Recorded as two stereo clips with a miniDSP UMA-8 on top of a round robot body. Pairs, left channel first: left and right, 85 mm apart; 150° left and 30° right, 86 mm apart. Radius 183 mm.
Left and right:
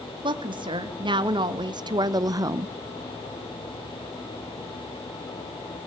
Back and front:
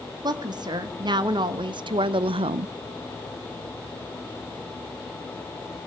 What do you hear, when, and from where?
0.2 s a woman speaking: 70° right, 1.7 m; by 2.8 s 30° right, 0.5 m